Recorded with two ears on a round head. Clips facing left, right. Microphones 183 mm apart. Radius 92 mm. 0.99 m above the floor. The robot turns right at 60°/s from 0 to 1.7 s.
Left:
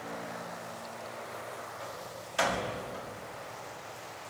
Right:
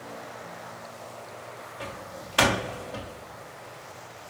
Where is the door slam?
75° right (ahead or behind), 1.5 m.